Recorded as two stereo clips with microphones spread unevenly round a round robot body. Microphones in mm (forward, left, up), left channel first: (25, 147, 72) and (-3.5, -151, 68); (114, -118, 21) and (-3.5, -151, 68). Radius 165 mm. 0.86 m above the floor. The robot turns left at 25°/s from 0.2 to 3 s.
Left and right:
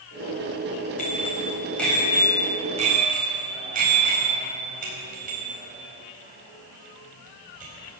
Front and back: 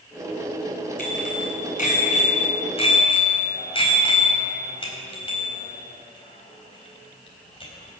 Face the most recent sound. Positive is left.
turn(degrees=-30)